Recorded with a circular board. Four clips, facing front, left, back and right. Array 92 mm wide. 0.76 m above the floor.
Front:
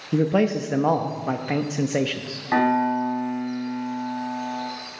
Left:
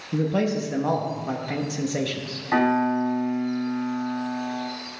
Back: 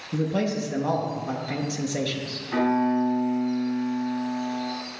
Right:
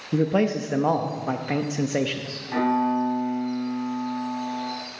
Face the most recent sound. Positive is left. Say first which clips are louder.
# left 1 dB, front 2 dB
turn(degrees=35)